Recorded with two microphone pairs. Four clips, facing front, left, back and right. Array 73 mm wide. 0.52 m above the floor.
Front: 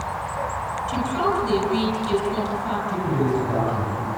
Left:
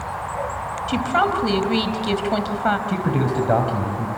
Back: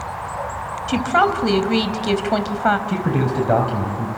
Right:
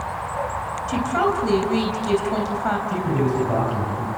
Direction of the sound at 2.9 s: 145° left.